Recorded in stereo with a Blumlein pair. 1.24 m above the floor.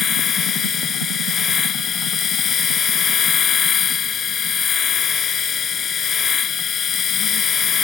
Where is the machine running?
25° left.